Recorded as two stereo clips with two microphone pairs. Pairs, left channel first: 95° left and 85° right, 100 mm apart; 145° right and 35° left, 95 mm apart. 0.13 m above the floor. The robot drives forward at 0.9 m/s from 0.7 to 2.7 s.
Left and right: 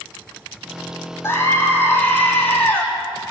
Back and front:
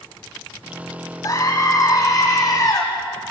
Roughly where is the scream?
Behind.